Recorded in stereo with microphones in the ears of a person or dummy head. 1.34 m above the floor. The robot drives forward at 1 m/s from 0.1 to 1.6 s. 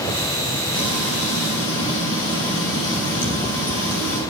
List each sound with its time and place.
0.7 s frying: 70° left (ahead or behind), 9.5 m; by 4.2 s 75° left (ahead or behind), 9 m